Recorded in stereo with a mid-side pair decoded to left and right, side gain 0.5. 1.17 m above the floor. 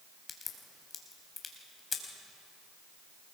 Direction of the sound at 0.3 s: 35° left.